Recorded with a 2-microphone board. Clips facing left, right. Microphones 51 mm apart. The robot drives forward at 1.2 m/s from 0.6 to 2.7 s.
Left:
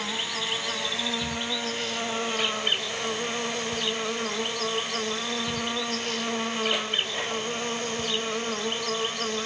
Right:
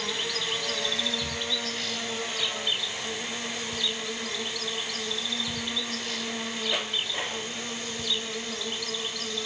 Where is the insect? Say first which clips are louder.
Left 1 dB; 25° left (ahead or behind), 4.5 m; by 9.5 s 50° left (ahead or behind), 2.5 m.